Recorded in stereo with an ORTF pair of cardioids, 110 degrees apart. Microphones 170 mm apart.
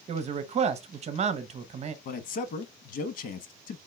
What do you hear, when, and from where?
0.1 s a man speaking: 40° right, 0.9 m
2.0 s a man speaking: 55° left, 1.0 m